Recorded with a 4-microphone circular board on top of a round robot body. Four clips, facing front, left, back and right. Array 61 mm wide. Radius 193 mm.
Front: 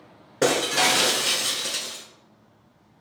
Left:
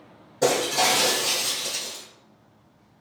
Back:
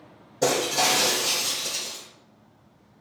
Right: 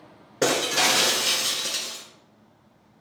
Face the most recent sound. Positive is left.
turn(degrees=-30)